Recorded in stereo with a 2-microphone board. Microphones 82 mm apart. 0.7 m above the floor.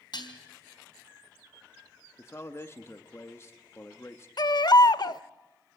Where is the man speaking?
35° left (ahead or behind), 1.1 m.